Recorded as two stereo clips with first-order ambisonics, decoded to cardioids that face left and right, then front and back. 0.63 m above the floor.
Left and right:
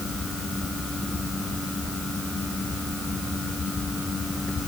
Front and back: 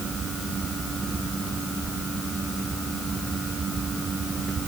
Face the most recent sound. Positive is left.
No sound to turn to.